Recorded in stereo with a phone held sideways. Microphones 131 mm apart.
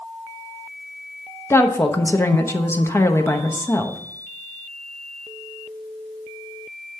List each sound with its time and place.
1.5 s a woman speaking: 20° left (ahead or behind), 0.9 m